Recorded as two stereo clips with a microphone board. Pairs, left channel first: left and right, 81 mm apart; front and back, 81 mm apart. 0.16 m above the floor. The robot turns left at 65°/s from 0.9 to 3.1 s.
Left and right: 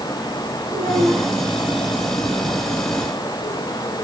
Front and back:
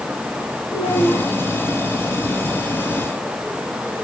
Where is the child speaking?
35° right, 5 m; by 1.3 s 60° right, 5 m.